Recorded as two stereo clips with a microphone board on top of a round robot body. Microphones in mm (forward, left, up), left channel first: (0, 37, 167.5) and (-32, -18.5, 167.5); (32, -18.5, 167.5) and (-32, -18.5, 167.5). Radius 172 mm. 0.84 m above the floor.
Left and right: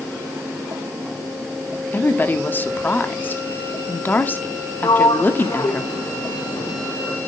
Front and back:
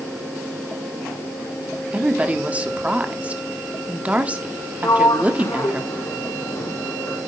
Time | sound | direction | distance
1.9 | a woman speaking | 115° left | 1.6 m
4.8 | a sliding door | 40° left | 2 m